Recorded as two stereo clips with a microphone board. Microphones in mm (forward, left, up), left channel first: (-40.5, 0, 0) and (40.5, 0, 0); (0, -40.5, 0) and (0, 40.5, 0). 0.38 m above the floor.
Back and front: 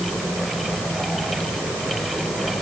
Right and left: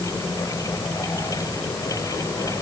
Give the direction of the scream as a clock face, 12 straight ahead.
No scream in this recording.